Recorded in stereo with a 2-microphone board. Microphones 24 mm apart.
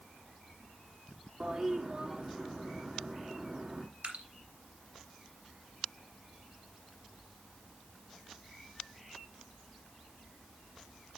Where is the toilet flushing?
35° right (ahead or behind), 2 m.